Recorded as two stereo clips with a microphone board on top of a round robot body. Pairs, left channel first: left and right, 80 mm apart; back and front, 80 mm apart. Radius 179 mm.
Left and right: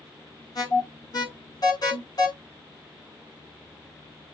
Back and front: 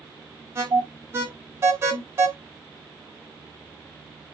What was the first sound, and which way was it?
An alarm, 60° left.